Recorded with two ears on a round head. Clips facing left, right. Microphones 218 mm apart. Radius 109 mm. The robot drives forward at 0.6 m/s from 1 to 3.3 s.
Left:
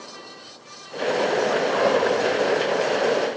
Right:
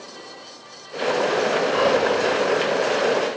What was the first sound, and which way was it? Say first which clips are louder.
Whispering: right 1 dB; 40° right (ahead or behind).